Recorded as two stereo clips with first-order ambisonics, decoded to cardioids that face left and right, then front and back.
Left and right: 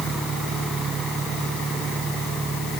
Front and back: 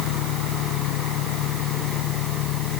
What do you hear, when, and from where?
0.0 s an engine running: 15° right